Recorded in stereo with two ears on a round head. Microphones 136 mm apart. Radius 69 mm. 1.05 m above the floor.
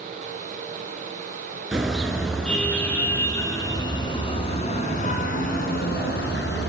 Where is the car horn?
5° right (ahead or behind), 6 m; by 6.7 s 75° left (ahead or behind), 5 m.